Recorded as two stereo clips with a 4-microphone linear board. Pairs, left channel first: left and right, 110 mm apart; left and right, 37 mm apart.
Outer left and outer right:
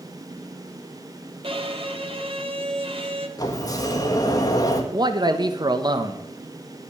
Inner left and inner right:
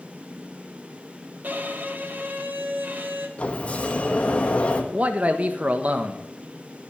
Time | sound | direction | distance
1.4 | a violin | 50° right (ahead or behind) | 1.3 m
3.4 | a sliding door | 35° left (ahead or behind) | 1.4 m
4.9 | a man speaking | 40° right (ahead or behind) | 1.0 m